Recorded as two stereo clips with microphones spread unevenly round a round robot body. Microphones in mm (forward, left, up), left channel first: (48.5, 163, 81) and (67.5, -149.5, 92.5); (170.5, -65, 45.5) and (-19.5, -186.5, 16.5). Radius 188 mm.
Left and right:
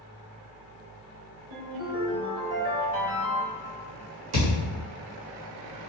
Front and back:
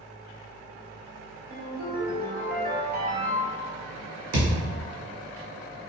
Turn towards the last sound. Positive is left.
turn(degrees=-125)